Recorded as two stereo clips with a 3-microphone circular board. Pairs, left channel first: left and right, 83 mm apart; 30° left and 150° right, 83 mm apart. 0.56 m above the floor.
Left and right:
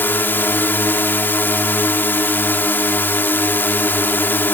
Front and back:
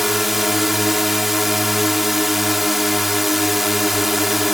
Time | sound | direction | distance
0.0 | a drone | 125° left | ?